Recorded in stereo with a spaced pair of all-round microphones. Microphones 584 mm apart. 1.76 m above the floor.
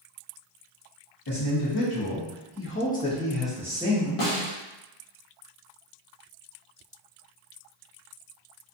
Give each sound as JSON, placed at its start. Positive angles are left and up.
{"t": 1.3, "sound": "a man speaking", "side_deg": 45, "distance_m": 0.9}
{"t": 4.2, "sound": "a snare drum", "side_deg": 65, "distance_m": 0.7}